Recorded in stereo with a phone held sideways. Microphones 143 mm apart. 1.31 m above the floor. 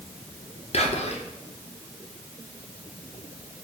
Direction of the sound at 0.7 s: 45° left (ahead or behind).